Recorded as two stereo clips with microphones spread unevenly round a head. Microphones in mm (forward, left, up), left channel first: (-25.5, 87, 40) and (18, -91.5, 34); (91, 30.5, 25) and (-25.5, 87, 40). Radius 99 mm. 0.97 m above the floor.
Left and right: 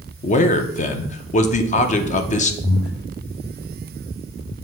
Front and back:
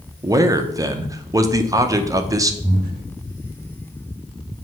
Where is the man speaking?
95° left, 0.8 m.